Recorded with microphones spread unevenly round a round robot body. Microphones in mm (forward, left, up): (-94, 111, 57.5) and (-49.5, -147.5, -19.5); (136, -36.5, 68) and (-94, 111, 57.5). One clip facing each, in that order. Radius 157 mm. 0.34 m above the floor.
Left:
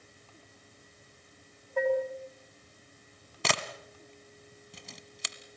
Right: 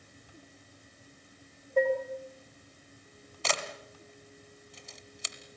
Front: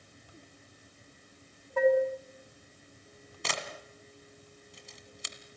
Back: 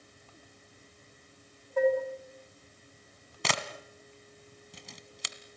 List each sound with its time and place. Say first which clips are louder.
1.8 s dishes clattering: right 1 dB, front 2 dB; 20° right, 3.5 m
3.4 s a camera shutter: left 1 dB, back 3 dB; 130° left, 1.8 m